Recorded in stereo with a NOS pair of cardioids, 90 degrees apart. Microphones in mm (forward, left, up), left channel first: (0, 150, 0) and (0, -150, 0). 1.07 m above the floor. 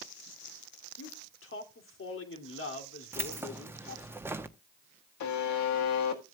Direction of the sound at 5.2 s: 70° left.